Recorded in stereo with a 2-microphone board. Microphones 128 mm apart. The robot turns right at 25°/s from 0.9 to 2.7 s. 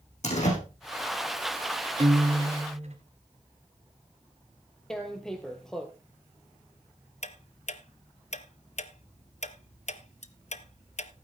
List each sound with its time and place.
0.2 s a door slam: 65° left (ahead or behind), 5.5 m
2.0 s a guitar: 50° right (ahead or behind), 2.5 m; by 3.0 s 55° right (ahead or behind), 2.5 m
4.9 s tearing paper: 5° left (ahead or behind), 1.8 m
7.2 s ticking: 65° left (ahead or behind), 0.7 m